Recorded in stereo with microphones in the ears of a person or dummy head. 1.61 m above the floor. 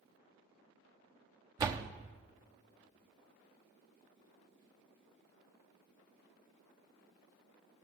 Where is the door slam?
25° right (ahead or behind), 0.6 m.